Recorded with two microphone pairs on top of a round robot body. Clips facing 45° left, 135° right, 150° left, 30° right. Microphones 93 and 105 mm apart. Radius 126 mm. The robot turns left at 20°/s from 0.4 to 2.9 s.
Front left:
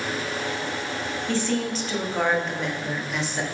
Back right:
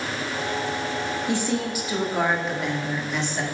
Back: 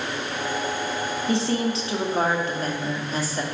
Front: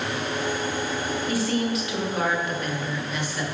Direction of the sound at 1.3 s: 175° right.